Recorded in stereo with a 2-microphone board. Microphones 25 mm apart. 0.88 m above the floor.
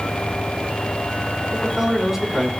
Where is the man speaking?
15° right (ahead or behind), 3.5 m.